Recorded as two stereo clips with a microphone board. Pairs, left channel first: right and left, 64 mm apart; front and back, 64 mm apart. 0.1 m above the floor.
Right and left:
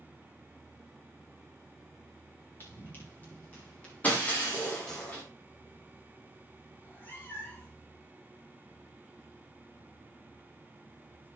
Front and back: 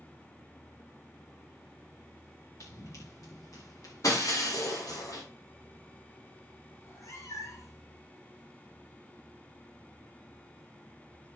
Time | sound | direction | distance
2.6 | running footsteps | 35° right | 6.5 m
4.0 | breaking glass | 25° right | 5 m
6.8 | a cat meowing | 30° right | 3.5 m